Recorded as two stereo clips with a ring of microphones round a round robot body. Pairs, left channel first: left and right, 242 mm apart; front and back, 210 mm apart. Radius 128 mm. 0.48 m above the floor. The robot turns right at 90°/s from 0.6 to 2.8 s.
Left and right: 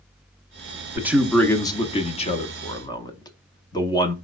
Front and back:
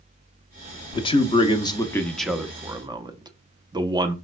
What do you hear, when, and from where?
0.9 s a man speaking: 30° right, 0.7 m; by 4.2 s 140° left, 0.7 m